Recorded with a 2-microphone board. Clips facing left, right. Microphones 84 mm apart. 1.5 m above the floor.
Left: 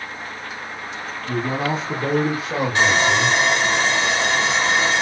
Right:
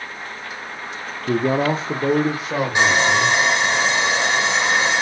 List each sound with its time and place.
1.3 s a man speaking: 85° right, 0.5 m; by 3.8 s centre (ahead or behind), 2.5 m
2.8 s sawing: 20° right (ahead or behind), 1.8 m